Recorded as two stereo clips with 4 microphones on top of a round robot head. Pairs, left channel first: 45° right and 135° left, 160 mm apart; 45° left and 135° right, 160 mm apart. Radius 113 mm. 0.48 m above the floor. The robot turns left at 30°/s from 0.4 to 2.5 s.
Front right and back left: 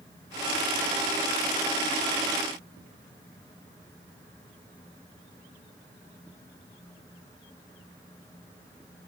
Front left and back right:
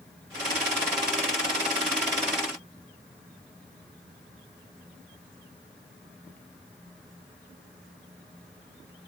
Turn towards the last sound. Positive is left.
No sound to turn to.